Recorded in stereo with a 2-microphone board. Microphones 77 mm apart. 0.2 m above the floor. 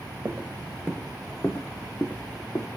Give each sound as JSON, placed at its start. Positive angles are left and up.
{"t": 0.2, "sound": "footsteps", "side_deg": -25, "distance_m": 0.6}